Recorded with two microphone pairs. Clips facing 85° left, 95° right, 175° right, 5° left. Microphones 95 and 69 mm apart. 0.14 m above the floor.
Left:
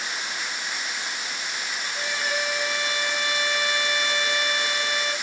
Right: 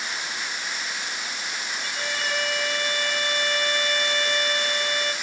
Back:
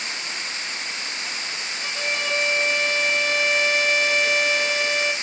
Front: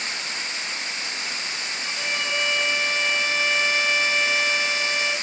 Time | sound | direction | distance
1.8 | a violin | 160° left | 1.9 m